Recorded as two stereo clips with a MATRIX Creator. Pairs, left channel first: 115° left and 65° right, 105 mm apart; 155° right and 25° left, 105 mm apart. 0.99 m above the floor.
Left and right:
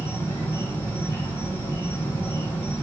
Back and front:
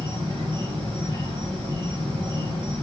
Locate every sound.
0.0 s an insect: 50° left, 1.6 m